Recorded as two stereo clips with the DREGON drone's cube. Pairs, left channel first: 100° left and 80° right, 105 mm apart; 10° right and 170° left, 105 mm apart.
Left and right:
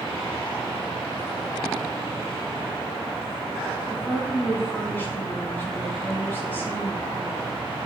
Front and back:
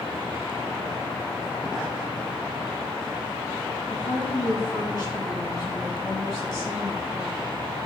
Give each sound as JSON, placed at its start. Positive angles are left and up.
{"t": 3.9, "sound": "a woman speaking", "azimuth_deg": 30, "distance_m": 3.5}